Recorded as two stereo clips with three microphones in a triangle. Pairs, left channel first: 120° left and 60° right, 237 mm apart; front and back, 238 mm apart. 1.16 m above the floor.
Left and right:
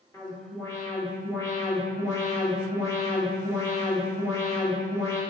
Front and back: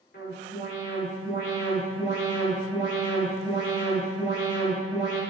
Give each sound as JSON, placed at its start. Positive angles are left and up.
{"t": 0.1, "sound": "an alarm", "azimuth_deg": 45, "distance_m": 3.0}